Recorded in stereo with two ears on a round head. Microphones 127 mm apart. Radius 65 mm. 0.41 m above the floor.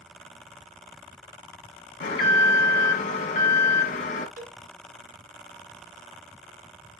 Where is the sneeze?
I don't hear a sneeze.